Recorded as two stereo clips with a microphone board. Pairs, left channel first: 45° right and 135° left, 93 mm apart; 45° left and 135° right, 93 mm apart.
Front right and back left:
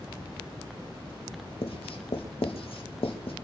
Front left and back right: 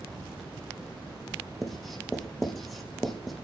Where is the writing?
45° right, 5.5 m.